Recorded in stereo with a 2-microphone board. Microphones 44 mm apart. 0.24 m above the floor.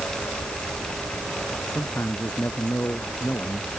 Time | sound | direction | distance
1.8 | a man speaking | 55° left (ahead or behind) | ?